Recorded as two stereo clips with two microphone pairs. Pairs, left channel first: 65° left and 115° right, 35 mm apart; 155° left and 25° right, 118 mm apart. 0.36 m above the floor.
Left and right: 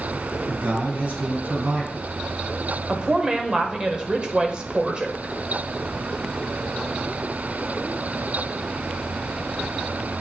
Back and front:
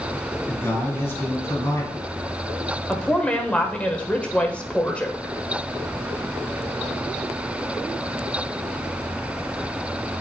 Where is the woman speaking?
140° right, 0.9 m.